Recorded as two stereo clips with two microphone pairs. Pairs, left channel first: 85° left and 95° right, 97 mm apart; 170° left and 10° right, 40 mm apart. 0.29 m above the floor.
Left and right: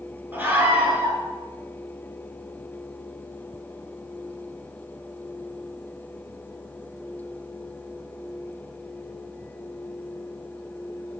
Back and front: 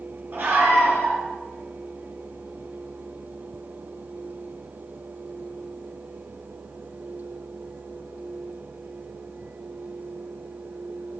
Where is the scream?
30° right, 4.5 m.